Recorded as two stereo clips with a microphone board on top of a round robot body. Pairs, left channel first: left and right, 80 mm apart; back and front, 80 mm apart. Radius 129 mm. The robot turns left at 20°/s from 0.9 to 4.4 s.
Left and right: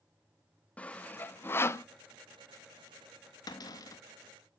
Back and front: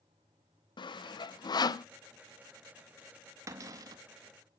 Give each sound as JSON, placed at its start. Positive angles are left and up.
{"t": 0.8, "sound": "sawing", "azimuth_deg": 165, "distance_m": 0.5}
{"t": 3.5, "sound": "a cupboard door", "azimuth_deg": 55, "distance_m": 0.7}